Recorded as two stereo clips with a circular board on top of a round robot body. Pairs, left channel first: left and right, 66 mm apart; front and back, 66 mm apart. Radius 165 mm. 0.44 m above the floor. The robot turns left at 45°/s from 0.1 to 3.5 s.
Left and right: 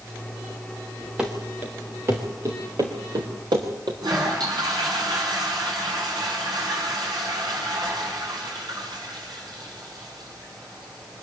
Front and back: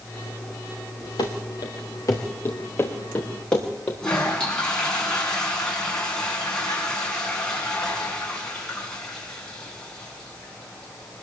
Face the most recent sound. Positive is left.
turn(degrees=-80)